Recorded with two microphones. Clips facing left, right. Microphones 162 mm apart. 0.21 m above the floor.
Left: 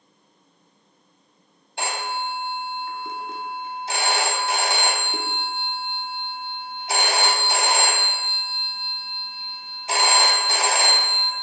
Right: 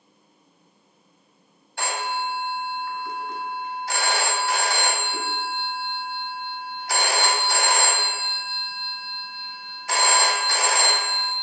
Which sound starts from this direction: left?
A phone ringing, at 1.8 s.